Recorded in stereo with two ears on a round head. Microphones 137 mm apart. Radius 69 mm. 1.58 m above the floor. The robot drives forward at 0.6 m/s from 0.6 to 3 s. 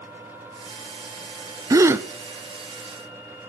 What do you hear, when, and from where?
1.7 s a gasp: 20° right (ahead or behind), 0.5 m; by 2.1 s 15° right (ahead or behind), 0.7 m